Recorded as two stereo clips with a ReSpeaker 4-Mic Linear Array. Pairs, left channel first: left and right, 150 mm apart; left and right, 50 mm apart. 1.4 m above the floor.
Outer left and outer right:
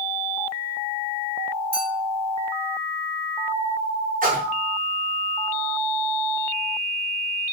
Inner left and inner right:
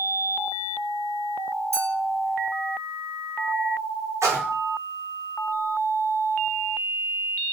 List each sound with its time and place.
1.7 s a clink: 65° right (ahead or behind), 1.7 m
4.2 s a splash: 65° right (ahead or behind), 1.0 m